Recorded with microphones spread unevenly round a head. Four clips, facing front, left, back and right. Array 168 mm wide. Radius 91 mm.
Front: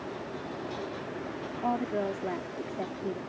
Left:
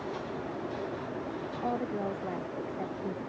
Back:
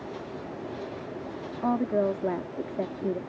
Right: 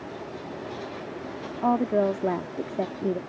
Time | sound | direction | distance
1.6 | a woman speaking | 120° right | ?